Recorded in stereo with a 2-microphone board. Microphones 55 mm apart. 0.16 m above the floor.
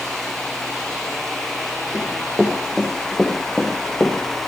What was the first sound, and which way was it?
Running footsteps, 10° right (ahead or behind).